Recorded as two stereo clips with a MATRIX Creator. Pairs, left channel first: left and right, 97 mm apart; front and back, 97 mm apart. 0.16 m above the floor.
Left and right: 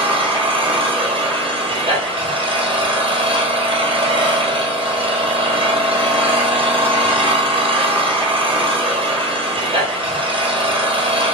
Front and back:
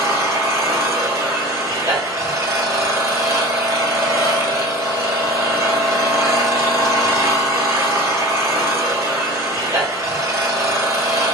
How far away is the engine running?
About 1.4 m.